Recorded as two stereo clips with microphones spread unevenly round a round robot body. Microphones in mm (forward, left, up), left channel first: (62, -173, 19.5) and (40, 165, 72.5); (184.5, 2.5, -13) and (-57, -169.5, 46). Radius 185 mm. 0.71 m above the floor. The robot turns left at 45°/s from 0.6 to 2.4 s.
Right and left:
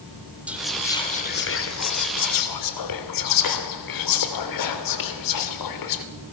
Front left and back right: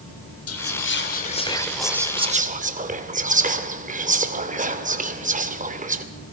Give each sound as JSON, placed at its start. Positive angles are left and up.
{"t": 0.5, "sound": "whispering", "azimuth_deg": 5, "distance_m": 3.0}